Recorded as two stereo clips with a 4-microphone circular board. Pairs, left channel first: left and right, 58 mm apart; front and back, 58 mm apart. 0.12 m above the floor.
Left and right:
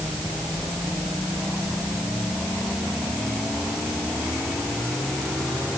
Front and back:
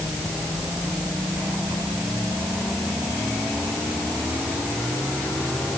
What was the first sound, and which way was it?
Only background noise.